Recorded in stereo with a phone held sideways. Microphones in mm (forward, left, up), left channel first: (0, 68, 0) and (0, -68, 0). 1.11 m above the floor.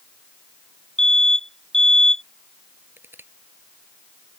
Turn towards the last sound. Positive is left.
turn(degrees=-15)  # may be behind; listen again after turning